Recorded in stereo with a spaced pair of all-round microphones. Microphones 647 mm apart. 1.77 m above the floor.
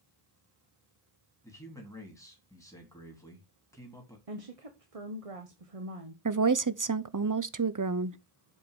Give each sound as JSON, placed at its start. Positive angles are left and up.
{"t": 1.4, "sound": "a man speaking", "side_deg": 5, "distance_m": 3.0}
{"t": 4.3, "sound": "a woman speaking", "side_deg": -60, "distance_m": 1.3}
{"t": 6.2, "sound": "a woman speaking", "side_deg": -30, "distance_m": 0.6}